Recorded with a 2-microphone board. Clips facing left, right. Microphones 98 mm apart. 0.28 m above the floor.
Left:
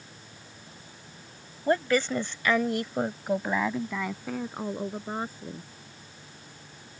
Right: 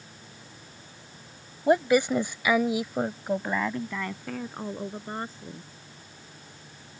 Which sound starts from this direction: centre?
A woman speaking, at 1.7 s.